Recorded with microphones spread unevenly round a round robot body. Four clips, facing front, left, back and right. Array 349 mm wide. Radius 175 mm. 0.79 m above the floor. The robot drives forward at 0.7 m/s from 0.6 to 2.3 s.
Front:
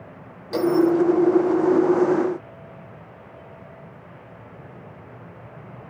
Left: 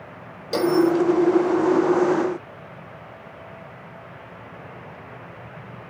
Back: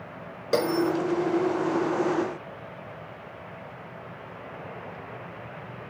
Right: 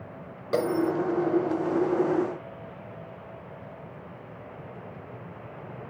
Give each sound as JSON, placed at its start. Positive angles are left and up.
{"t": 0.5, "sound": "a bell", "azimuth_deg": -170, "distance_m": 4.5}